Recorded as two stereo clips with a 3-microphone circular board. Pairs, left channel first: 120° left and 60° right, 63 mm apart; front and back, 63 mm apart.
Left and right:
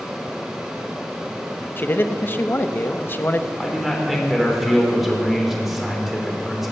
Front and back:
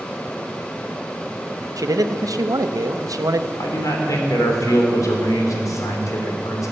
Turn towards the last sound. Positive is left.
turn(degrees=25)